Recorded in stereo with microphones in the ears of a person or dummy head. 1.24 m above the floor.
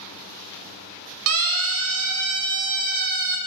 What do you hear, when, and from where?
1.3 s a siren: 80° right, 2 m; by 3.4 s 45° right (ahead or behind), 3.5 m